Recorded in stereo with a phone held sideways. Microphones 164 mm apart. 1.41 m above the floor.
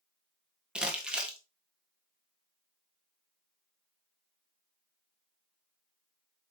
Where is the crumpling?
5° right (ahead or behind), 1.5 m.